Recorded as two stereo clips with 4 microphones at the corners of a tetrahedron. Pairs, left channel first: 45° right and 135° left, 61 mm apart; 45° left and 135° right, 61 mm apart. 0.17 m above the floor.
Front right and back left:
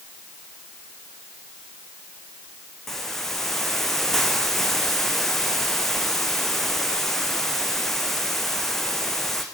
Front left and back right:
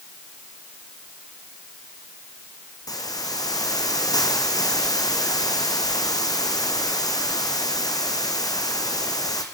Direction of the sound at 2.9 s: 40° left.